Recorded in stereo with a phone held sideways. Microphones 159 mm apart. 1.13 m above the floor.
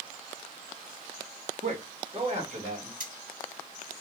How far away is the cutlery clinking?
About 1.3 m.